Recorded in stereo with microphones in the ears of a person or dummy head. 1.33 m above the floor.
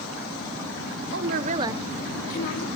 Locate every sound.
1.1 s a woman speaking: 60° right (ahead or behind), 0.9 m; by 2.6 s 65° left (ahead or behind), 1.2 m